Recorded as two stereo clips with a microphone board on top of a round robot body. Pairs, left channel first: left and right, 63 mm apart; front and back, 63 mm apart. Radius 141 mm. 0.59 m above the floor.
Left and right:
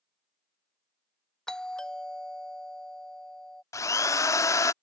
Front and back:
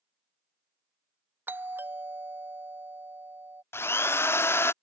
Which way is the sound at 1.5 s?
165° left.